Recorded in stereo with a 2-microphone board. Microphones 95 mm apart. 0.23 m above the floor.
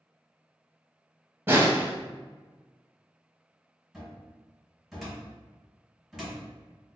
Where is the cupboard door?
5° right (ahead or behind), 1.7 m.